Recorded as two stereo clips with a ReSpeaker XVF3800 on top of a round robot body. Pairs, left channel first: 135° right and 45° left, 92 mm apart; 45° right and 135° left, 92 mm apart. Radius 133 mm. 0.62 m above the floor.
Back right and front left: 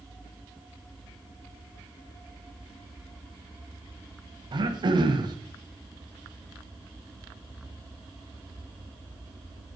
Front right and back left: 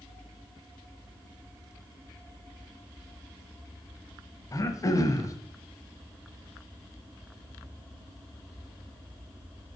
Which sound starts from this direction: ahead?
Throat clearing, at 4.5 s.